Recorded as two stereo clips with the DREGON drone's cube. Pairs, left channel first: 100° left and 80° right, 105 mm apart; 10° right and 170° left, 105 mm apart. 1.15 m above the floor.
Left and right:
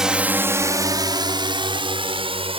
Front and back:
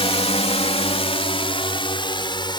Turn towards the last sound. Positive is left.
turn(degrees=-55)